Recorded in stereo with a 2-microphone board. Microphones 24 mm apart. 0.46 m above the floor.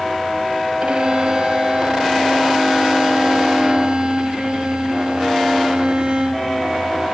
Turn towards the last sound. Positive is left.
turn(degrees=-50)  # may be behind; listen again after turning